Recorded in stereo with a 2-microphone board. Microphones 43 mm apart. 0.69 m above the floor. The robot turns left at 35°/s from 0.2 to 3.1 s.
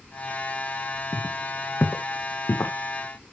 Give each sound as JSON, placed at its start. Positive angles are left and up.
{"t": 1.1, "sound": "footsteps", "side_deg": 70, "distance_m": 2.5}